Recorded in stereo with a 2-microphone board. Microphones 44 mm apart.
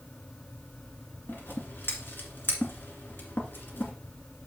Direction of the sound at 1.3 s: 55° left (ahead or behind).